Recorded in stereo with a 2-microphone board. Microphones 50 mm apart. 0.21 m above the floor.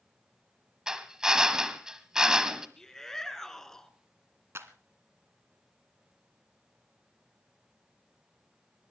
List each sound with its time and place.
0.9 s a drill: 15° right (ahead or behind), 1.5 m
2.8 s a shout: 10° left (ahead or behind), 2.5 m
4.5 s a clap: 55° right (ahead or behind), 1.7 m